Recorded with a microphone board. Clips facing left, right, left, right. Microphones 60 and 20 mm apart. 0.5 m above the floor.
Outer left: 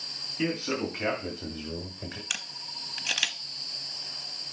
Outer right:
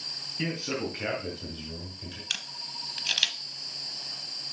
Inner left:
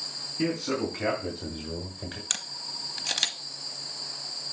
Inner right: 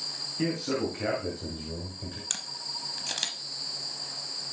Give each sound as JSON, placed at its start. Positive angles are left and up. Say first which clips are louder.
{"t": 0.4, "sound": "a man speaking", "louder": "outer left 2 dB, inner left 1 dB", "side_deg": 0, "distance_m": 3.0}
{"t": 2.3, "sound": "a camera shutter", "louder": "even, inner left 1 dB", "side_deg": 20, "distance_m": 0.7}